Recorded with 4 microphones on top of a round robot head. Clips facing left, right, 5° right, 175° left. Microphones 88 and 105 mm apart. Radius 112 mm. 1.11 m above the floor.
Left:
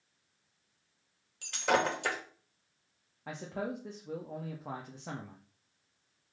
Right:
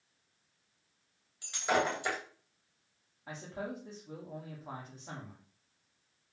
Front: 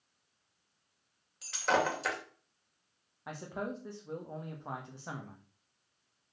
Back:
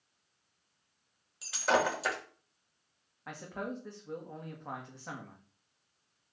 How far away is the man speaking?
About 1.8 m.